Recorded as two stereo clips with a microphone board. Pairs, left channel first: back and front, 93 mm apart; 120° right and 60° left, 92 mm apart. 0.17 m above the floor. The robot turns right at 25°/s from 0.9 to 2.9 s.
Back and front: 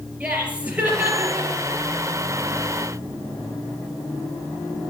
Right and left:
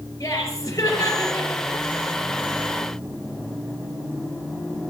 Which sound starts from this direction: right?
Laughter, at 0.2 s.